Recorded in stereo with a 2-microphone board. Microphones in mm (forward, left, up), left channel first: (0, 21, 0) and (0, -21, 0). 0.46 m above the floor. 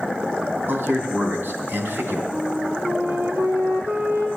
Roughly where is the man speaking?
Right.